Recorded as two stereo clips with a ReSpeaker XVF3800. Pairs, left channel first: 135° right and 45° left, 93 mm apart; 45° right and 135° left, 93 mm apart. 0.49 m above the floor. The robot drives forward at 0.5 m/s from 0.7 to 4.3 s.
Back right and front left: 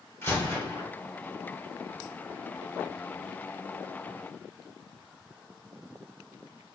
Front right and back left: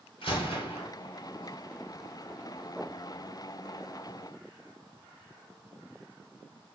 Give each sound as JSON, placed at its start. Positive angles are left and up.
{"t": 0.2, "sound": "a gunshot", "azimuth_deg": -70, "distance_m": 3.5}